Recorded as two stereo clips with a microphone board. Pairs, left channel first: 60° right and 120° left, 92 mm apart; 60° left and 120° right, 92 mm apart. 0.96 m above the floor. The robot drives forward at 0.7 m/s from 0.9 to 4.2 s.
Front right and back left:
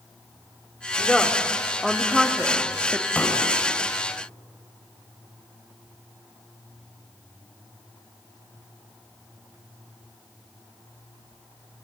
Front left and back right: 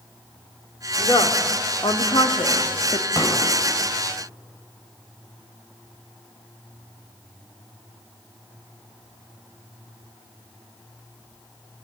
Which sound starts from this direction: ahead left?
A woman speaking, at 1.0 s.